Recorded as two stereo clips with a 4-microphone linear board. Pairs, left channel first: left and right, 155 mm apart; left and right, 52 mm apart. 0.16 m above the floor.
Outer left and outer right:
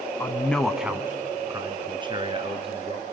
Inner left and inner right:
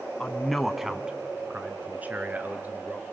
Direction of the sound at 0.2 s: 15° left (ahead or behind).